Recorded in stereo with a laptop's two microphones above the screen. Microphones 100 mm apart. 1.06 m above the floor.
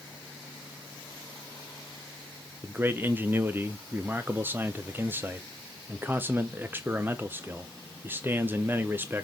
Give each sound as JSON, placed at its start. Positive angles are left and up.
{"t": 2.6, "sound": "a man speaking", "side_deg": -20, "distance_m": 0.6}